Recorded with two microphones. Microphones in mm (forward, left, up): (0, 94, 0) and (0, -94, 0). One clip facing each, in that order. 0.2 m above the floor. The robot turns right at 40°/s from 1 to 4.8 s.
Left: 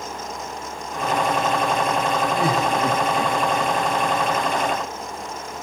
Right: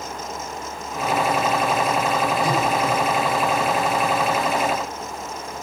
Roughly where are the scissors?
I don't hear scissors.